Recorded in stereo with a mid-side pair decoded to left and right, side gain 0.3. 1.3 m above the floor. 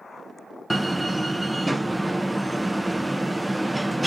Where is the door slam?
15° right, 0.6 m.